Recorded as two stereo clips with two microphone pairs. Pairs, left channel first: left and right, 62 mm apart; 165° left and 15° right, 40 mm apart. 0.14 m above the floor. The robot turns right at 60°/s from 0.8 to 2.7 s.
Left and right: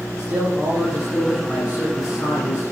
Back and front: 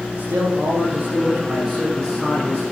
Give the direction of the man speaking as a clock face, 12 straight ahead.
1 o'clock.